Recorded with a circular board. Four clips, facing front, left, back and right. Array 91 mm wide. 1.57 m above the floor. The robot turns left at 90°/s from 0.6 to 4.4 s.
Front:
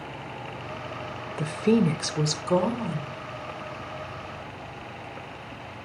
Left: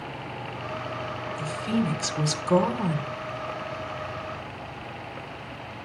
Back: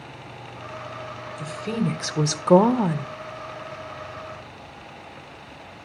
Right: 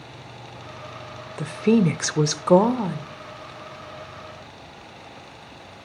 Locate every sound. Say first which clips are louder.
1.4 s a woman speaking: right 9 dB, front 6 dB; 35° right, 0.6 m; by 3.1 s 170° left, 0.6 m